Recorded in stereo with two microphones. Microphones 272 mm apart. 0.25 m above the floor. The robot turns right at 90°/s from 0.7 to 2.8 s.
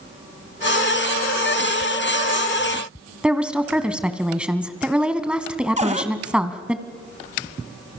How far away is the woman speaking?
About 1.8 m.